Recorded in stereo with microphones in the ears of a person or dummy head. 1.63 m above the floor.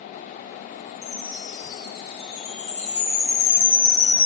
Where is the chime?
30° left (ahead or behind), 1.8 m.